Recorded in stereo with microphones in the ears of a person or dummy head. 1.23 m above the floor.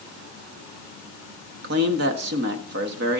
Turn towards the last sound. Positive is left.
turn(degrees=-50)  # may be behind; listen again after turning